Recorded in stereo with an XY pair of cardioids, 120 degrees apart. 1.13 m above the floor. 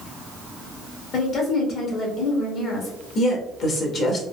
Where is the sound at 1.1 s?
60° left, 1.6 m.